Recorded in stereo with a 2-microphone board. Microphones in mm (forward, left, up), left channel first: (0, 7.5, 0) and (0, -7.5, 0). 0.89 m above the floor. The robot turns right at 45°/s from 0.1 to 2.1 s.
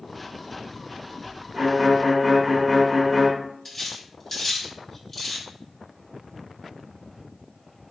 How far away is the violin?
About 1.3 m.